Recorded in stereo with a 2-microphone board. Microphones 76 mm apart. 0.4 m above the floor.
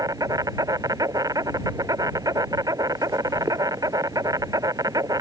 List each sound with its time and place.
0.0 s an insect: 55° right (ahead or behind)